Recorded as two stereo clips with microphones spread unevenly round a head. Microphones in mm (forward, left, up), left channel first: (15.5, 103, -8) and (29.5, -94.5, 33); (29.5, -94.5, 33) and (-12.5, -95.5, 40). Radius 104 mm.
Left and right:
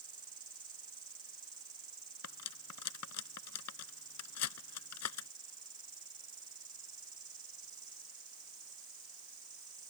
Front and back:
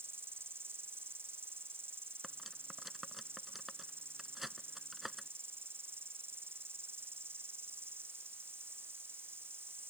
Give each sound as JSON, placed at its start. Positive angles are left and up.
{"t": 0.0, "sound": "an insect", "azimuth_deg": -160}
{"t": 2.2, "sound": "cutlery clinking", "azimuth_deg": 95}